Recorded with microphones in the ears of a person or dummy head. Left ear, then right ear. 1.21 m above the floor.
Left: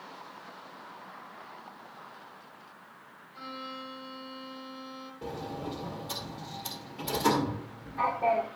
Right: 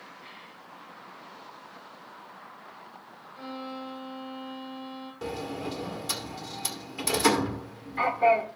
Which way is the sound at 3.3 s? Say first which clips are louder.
Right 2 dB; 15° left (ahead or behind).